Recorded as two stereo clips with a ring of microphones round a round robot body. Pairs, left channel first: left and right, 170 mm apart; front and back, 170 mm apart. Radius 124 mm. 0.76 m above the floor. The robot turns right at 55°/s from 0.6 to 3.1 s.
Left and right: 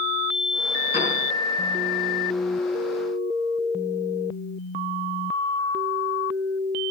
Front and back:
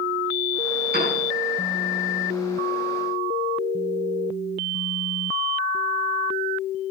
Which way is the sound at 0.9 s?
160° left.